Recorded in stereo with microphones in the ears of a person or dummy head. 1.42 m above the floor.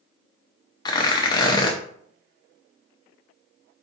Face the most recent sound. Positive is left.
turn(degrees=20)  # may be behind; listen again after turning